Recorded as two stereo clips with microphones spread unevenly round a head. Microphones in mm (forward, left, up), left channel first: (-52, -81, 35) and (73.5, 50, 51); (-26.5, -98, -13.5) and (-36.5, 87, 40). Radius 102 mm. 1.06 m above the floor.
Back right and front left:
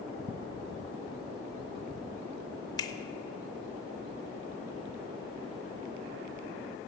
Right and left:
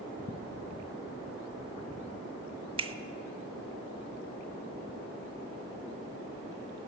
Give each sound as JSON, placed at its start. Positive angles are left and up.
{"t": 2.8, "sound": "a finger snap", "azimuth_deg": 155, "distance_m": 0.6}